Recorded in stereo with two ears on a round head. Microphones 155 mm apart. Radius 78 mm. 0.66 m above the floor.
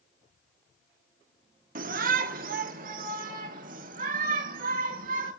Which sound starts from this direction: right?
A shout, at 1.8 s.